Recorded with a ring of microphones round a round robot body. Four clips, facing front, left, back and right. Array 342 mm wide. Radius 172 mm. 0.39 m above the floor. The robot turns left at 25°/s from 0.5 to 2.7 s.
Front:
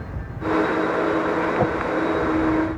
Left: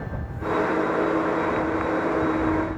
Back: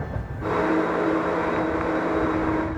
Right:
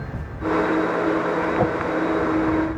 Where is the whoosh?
45° right; by 1.8 s 50° right.